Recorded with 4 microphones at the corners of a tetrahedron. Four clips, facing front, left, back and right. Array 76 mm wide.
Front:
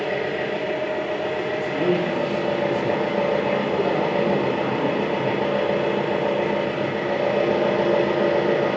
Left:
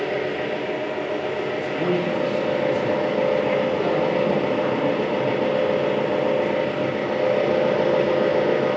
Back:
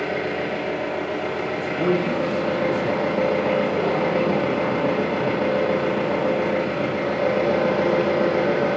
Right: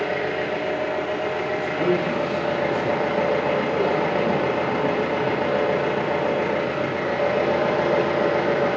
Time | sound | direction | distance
0.0 | an engine running | 125° right | 0.9 m
1.5 | a man speaking | 175° left | 1.4 m